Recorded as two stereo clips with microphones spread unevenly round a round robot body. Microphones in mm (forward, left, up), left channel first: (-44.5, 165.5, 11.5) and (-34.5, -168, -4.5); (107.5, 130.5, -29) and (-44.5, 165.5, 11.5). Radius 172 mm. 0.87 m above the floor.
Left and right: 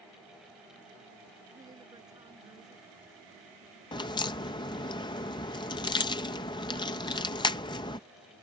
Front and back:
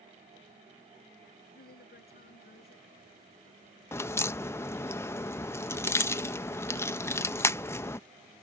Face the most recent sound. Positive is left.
turn(degrees=20)